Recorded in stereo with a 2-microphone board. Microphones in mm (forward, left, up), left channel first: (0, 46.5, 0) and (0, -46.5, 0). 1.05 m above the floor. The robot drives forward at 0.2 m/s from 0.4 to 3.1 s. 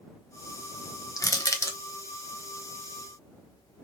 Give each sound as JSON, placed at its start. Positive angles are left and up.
{"t": 1.2, "sound": "crushing", "side_deg": 40, "distance_m": 0.6}